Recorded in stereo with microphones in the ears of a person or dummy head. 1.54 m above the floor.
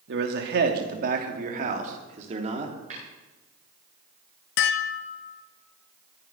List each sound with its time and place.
0.1 s a man speaking: 70° right (ahead or behind), 2.5 m; by 2.7 s 35° right (ahead or behind), 3.5 m
2.9 s tapping: 45° right (ahead or behind), 9 m
4.6 s dishes clattering: 60° left (ahead or behind), 1.0 m